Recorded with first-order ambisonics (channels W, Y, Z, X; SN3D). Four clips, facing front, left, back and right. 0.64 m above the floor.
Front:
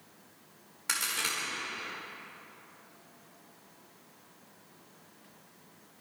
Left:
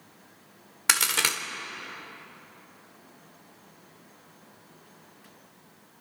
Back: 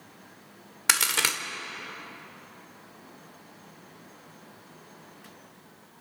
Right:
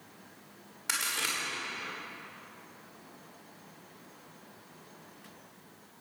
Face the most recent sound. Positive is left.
turn(degrees=135)